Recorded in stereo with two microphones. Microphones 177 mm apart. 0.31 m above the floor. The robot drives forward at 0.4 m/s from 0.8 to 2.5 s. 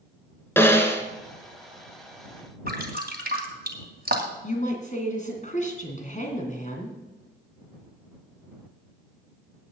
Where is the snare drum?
15° left (ahead or behind), 1.7 m.